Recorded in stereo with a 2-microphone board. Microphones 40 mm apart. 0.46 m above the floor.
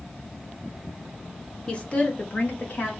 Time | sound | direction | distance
1.7 | a woman speaking | 25° left (ahead or behind) | 0.8 m